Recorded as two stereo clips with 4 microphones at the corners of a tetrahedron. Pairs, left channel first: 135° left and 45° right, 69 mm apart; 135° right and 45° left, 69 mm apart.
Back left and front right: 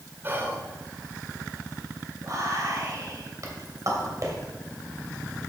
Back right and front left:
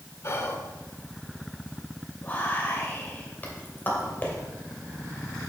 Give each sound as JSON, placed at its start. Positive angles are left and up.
{"t": 0.2, "sound": "whispering", "azimuth_deg": -95, "distance_m": 1.4}
{"t": 2.2, "sound": "whispering", "azimuth_deg": -75, "distance_m": 2.5}